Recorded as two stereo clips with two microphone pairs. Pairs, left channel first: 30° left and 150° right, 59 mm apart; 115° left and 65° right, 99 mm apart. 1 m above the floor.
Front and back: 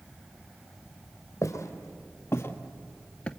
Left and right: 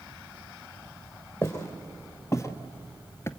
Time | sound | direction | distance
1.4 | footsteps | 55° left | 2 m